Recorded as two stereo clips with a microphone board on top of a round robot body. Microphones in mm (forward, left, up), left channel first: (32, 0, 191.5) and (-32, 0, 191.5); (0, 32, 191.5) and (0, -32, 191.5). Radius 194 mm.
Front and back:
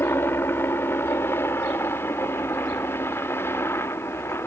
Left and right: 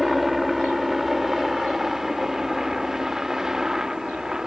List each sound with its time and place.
0.0 s a helicopter: 5° right; by 4.5 s 15° right